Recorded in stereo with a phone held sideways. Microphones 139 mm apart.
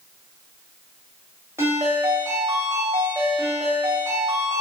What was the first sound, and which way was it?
A ringtone, 20° right (ahead or behind).